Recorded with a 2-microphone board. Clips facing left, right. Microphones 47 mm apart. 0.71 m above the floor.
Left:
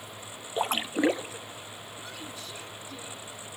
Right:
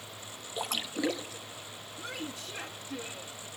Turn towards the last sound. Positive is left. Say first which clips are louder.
# right 4 dB
turn(degrees=-55)  # may be behind; listen again after turning